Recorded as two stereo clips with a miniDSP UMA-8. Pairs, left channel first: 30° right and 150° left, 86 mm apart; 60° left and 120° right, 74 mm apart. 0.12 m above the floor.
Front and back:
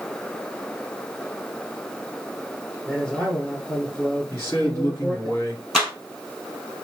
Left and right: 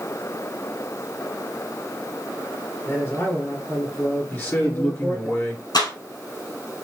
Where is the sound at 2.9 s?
40° left, 1.4 m.